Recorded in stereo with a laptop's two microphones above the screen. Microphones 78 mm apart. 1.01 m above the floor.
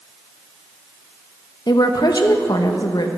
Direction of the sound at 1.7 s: 60° left (ahead or behind).